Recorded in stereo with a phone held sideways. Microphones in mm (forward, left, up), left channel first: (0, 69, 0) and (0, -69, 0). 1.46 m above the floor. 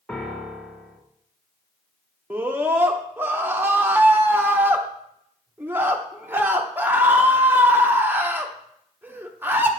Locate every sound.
0.1 s a piano: 10° left (ahead or behind), 0.8 m
2.3 s a scream: 15° right (ahead or behind), 0.6 m